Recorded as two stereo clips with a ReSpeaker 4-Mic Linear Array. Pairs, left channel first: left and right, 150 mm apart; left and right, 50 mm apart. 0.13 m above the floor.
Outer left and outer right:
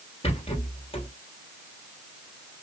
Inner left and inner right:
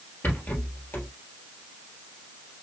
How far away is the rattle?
About 3 m.